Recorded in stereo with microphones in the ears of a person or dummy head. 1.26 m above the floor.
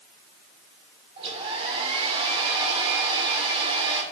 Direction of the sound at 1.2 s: 35° right (ahead or behind).